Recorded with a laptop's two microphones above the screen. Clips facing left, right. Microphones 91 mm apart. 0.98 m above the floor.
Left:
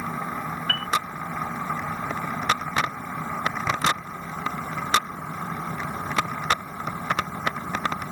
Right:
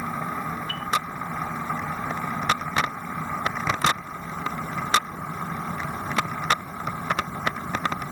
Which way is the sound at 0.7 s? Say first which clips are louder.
Left 3 dB; 80° left.